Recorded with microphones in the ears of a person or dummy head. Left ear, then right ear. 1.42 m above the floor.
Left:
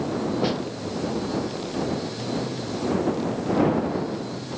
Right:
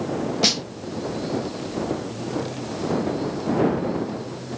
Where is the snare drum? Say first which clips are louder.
Right 9 dB; 75° right (ahead or behind).